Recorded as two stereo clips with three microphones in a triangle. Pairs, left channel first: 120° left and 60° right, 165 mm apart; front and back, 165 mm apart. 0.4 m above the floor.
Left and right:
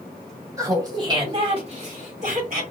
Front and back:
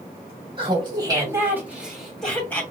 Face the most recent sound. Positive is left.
turn(degrees=-75)